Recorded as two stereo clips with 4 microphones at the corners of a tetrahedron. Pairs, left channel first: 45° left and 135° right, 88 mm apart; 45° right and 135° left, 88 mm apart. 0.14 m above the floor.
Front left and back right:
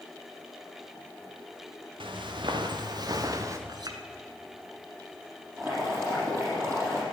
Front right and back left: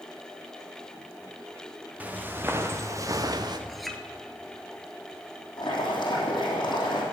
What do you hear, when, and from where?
2.0 s footsteps: 155° right, 1.8 m; by 3.6 s 170° left, 1.5 m
3.7 s a clink: 135° right, 1.3 m
5.6 s boiling: 75° right, 4 m